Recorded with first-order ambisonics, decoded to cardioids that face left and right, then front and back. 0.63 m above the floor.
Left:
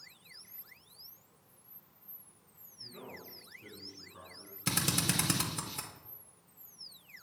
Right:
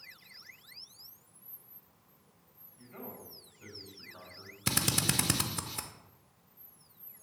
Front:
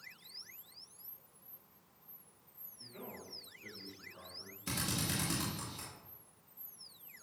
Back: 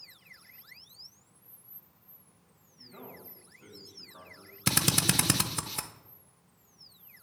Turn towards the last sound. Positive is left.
turn(degrees=-165)